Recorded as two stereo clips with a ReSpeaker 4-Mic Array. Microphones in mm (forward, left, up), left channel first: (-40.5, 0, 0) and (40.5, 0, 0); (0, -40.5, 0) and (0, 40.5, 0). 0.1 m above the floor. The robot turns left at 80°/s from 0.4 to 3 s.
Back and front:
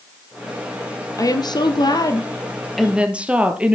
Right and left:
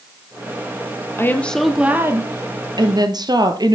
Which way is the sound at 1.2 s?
140° right.